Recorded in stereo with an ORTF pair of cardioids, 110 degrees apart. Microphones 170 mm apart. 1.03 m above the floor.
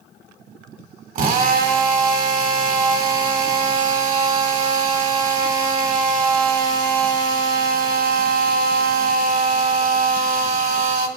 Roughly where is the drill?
Ahead right.